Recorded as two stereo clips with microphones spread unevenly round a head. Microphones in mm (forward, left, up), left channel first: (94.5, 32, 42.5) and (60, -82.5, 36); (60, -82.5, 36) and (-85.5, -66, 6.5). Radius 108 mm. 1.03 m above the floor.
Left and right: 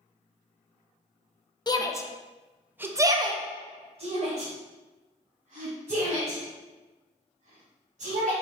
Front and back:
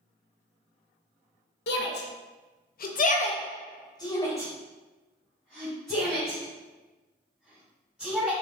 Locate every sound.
1.7 s a shout: 15° left, 0.8 m; by 8.3 s 100° right, 3 m